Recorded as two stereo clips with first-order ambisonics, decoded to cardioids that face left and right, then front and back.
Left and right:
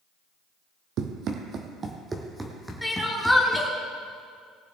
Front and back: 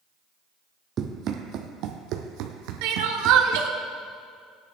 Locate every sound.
1.0 s running footsteps: 125° right, 1.2 m; by 3.6 s 165° left, 1.7 m
2.8 s crying: straight behind, 1.2 m